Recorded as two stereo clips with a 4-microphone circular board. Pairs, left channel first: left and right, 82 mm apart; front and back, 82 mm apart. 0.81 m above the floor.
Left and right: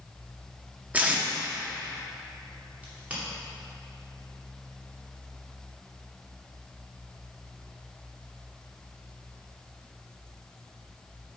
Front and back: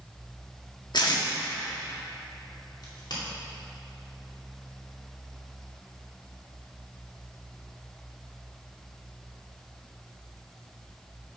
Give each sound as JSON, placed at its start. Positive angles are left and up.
{"t": 0.9, "sound": "tape being pulled", "azimuth_deg": -20, "distance_m": 1.3}
{"t": 2.8, "sound": "a crack", "azimuth_deg": -20, "distance_m": 2.5}